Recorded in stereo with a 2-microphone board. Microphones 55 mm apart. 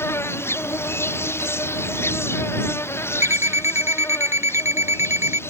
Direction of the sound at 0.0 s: 50° left (ahead or behind).